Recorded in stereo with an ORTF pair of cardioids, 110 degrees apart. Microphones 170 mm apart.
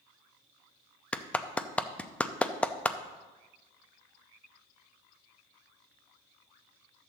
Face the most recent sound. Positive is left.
turn(degrees=10)